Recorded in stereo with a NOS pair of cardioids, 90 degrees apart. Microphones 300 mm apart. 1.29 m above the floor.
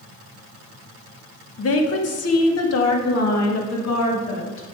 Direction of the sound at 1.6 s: 50° left.